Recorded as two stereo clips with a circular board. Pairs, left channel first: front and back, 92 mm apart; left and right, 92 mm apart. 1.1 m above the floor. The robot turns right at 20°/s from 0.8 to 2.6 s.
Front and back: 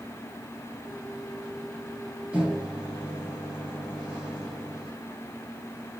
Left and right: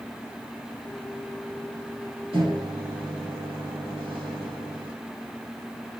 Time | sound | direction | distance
2.3 | a microwave | 100° right | 2 m